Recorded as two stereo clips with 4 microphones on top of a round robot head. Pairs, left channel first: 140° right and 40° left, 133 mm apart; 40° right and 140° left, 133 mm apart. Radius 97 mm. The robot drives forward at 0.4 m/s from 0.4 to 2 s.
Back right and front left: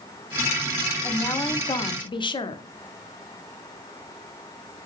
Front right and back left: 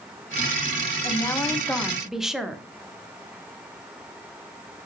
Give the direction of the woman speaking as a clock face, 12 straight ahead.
3 o'clock.